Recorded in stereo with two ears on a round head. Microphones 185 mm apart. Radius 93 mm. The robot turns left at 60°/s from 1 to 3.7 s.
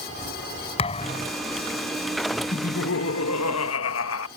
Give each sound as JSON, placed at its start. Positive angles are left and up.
{"t": 0.8, "sound": "a thud", "side_deg": 30}
{"t": 2.5, "sound": "laughter", "azimuth_deg": 145}